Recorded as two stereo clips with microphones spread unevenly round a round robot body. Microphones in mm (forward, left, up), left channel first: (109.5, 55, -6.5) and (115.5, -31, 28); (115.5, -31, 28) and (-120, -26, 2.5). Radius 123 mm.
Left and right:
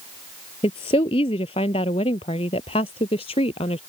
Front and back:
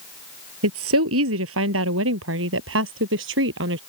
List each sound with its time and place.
0.6 s a woman speaking: 140° left; by 3.8 s 135° left